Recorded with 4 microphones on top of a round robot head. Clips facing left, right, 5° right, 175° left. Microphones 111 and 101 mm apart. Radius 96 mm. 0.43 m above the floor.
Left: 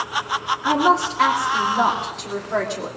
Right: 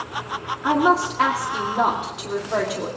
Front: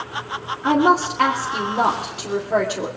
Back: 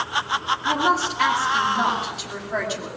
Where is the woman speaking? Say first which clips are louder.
Even, front 7 dB; 10° right, 1.8 m.